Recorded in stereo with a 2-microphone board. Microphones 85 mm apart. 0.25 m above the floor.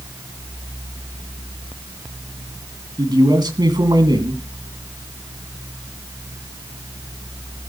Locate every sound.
3.0 s a man speaking: 55° right (ahead or behind), 2.5 m